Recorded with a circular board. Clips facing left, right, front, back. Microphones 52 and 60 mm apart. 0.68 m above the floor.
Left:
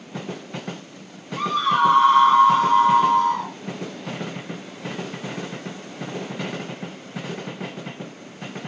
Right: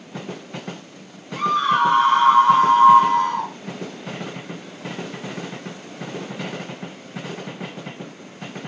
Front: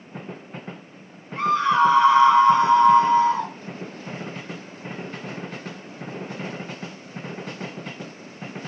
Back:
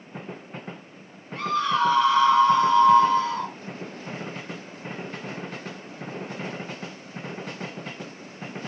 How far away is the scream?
About 3.5 m.